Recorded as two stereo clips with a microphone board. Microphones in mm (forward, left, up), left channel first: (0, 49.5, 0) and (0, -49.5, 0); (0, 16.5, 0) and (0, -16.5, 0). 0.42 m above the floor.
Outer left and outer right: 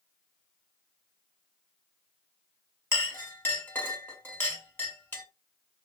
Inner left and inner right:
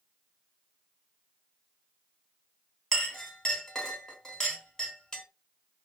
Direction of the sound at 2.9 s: 20° left (ahead or behind).